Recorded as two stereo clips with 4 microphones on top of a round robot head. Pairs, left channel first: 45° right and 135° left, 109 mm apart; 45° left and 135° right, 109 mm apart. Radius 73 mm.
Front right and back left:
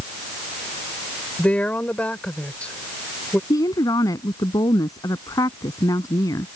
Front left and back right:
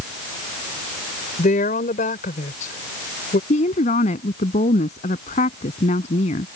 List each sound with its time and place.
1.4 s a woman speaking: 35° left
3.5 s a woman speaking: 15° left